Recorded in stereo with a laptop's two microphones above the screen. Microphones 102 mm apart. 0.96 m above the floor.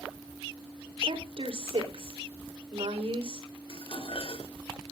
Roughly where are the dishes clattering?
Left.